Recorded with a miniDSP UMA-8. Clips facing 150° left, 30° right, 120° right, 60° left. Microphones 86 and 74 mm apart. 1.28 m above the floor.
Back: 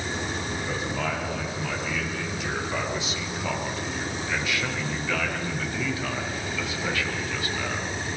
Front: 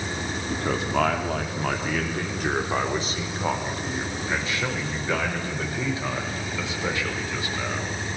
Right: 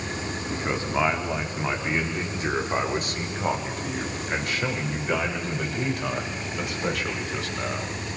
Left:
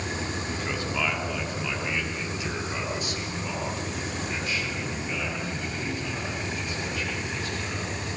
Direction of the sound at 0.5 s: 55° right.